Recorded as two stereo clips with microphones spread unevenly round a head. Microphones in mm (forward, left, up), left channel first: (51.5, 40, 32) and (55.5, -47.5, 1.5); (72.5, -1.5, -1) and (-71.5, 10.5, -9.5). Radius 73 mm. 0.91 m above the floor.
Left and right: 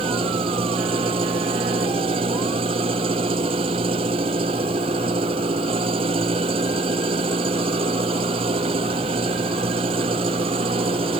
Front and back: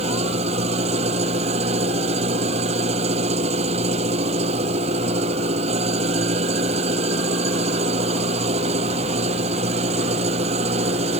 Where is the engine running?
135° right.